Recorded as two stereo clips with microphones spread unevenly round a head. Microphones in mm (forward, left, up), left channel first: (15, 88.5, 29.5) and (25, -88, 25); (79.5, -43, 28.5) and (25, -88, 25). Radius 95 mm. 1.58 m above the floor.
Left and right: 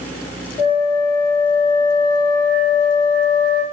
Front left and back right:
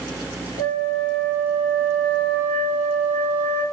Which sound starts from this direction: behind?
A flute, at 0.6 s.